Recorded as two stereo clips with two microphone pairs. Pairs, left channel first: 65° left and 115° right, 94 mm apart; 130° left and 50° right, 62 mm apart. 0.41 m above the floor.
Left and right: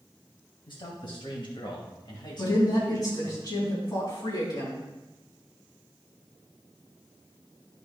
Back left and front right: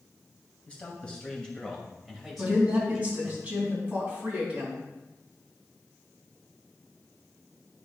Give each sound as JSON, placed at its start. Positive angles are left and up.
{"t": 0.7, "sound": "a man speaking", "azimuth_deg": 65, "distance_m": 3.0}
{"t": 2.4, "sound": "a woman speaking", "azimuth_deg": 20, "distance_m": 4.5}